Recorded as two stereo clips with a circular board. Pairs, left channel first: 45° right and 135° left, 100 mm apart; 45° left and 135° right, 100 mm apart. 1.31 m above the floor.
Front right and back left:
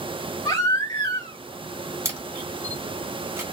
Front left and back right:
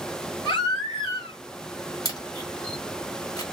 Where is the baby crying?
10° left, 2 m.